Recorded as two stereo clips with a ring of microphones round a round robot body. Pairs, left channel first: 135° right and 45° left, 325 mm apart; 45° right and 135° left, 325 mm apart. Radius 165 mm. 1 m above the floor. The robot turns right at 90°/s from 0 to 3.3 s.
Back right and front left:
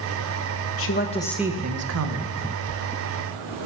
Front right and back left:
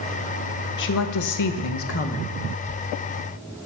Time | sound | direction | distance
0.8 | a woman speaking | 95° right | 0.9 m